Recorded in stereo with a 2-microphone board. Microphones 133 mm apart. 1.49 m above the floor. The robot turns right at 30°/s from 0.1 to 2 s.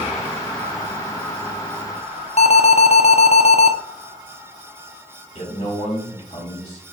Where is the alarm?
55° left (ahead or behind), 0.5 m.